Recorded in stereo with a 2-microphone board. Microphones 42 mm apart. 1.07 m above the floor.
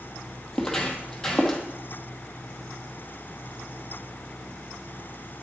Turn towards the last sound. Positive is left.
turn(degrees=10)  # may be behind; listen again after turning